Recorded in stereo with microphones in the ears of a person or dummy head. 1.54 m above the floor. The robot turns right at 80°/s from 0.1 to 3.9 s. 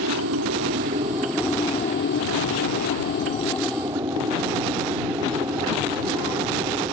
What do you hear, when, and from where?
0.0 s an aircraft: 70° right (ahead or behind); by 6.9 s 20° right (ahead or behind)